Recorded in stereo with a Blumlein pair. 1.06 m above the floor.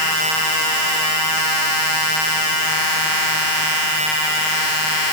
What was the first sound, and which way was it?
Only background noise.